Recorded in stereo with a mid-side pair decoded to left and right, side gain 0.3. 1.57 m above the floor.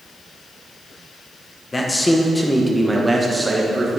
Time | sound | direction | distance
1.7 | a man speaking | 35° left | 1.6 m